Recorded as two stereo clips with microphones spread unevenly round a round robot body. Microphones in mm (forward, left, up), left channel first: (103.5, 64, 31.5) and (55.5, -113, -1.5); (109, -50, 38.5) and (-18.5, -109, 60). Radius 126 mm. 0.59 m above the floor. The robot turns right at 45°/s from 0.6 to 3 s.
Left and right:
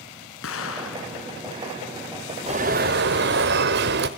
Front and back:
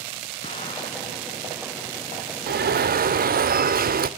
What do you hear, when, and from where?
0.4 s an explosion: 90° left, 3.5 m; by 1.2 s 115° left, 3.5 m
2.5 s an alarm: 165° right, 1.2 m; by 4.1 s 145° right, 1.2 m